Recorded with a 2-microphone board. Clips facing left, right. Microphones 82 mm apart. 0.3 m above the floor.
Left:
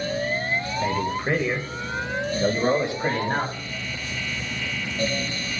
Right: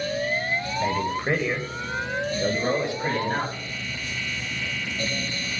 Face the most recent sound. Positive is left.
turn(degrees=30)  # may be behind; listen again after turning